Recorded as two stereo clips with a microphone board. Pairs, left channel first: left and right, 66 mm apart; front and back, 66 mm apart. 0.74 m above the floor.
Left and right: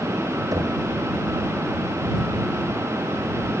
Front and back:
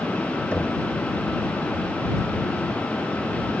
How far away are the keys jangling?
No keys jangling in this recording.